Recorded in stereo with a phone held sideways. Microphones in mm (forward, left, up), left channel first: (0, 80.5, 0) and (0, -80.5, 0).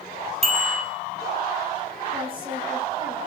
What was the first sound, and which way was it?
A bicycle bell, 40° right (ahead or behind).